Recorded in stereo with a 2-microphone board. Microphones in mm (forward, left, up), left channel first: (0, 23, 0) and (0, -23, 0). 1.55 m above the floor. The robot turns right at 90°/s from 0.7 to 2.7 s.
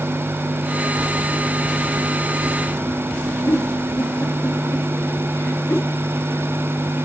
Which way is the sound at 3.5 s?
60° left (ahead or behind).